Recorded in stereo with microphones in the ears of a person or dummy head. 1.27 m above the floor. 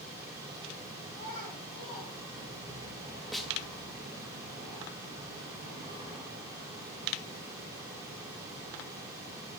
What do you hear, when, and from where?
1.1 s a child speaking: 30° left (ahead or behind), 6 m
3.3 s a snare drum: centre (ahead or behind), 0.9 m